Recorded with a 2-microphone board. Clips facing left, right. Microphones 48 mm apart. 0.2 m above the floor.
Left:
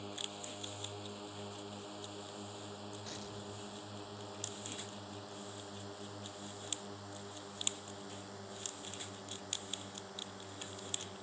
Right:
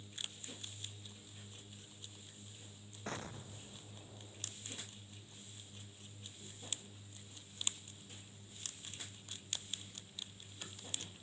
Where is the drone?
80° left; by 11.2 s 75° left (ahead or behind).